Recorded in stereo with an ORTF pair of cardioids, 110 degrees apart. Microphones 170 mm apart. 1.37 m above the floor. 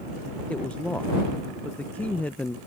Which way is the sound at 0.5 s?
10° left.